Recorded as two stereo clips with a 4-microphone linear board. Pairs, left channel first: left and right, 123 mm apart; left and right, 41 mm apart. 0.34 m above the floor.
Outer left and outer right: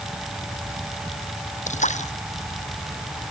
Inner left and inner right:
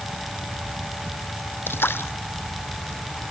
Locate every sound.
1.7 s a splash: 75° left (ahead or behind)